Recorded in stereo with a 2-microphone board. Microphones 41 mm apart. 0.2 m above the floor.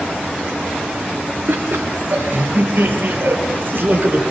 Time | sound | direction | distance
1.5 | laughter | 60° right (ahead or behind) | 4.5 m